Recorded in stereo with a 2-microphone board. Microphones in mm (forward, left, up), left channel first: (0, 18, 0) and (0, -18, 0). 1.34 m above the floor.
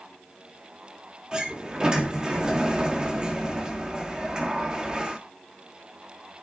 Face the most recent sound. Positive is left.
turn(degrees=-25)  # may be behind; listen again after turning